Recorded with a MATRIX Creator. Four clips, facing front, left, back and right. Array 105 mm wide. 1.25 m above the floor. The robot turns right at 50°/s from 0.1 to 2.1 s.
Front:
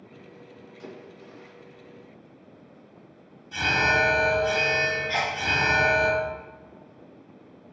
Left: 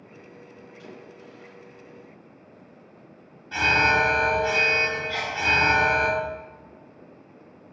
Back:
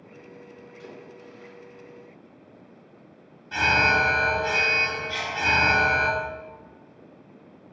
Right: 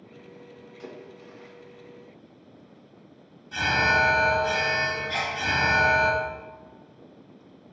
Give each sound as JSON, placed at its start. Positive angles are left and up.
{"t": 0.8, "sound": "a splash", "azimuth_deg": -75, "distance_m": 2.5}
{"t": 3.5, "sound": "an alarm", "azimuth_deg": 140, "distance_m": 2.5}
{"t": 5.1, "sound": "a sneeze", "azimuth_deg": -10, "distance_m": 1.0}